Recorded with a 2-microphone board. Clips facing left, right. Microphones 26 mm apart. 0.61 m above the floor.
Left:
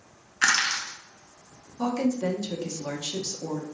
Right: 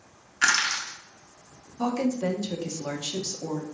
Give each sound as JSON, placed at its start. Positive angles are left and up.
{"t": 0.4, "sound": "crushing", "side_deg": 5, "distance_m": 1.0}
{"t": 1.8, "sound": "a woman speaking", "side_deg": -15, "distance_m": 0.5}